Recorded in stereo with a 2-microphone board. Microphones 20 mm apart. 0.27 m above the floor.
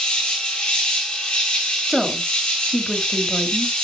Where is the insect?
45° left (ahead or behind), 1.7 m.